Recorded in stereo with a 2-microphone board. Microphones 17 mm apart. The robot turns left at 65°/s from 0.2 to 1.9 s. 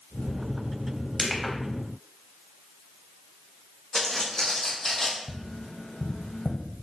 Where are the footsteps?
45° left (ahead or behind), 1.3 m; by 5.2 s 15° left (ahead or behind), 0.7 m.